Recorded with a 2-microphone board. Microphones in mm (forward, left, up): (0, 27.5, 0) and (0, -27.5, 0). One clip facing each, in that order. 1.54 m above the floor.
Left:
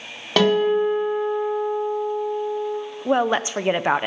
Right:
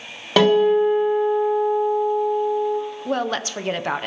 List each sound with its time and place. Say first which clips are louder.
0.4 s a guitar: right 3 dB; 5° right (ahead or behind), 4.5 m
3.0 s a woman speaking: left 7 dB; 20° left (ahead or behind), 0.6 m